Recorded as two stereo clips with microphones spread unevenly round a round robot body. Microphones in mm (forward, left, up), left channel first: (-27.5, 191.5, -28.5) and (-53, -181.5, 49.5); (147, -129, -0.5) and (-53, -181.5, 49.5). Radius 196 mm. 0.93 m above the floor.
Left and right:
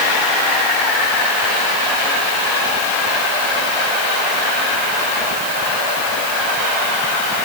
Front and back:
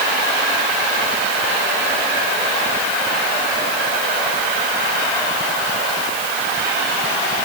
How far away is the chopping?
I don't hear chopping.